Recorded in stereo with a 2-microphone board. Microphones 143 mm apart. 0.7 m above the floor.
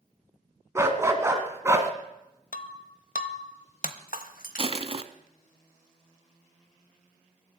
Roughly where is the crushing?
Right.